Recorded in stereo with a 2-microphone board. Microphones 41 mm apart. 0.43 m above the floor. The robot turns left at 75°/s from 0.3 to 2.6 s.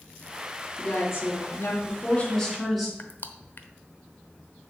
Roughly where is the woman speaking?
Behind left.